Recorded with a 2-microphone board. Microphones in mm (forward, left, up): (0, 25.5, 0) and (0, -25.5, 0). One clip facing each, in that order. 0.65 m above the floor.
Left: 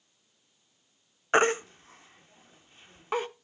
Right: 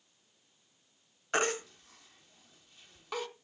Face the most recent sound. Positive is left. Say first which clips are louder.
# left 8 dB
turn(degrees=30)  # may be behind; listen again after turning